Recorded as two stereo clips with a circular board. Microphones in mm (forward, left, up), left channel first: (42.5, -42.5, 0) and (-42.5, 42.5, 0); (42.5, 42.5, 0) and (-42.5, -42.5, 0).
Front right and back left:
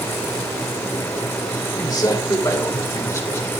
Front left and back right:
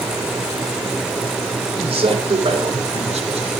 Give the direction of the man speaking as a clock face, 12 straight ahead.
3 o'clock.